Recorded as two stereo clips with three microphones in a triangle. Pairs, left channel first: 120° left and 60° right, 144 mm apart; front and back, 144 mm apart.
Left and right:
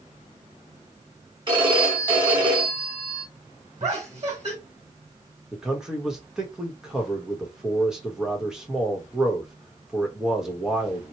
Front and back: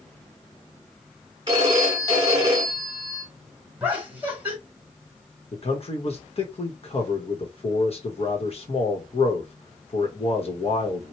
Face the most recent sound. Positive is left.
turn(degrees=25)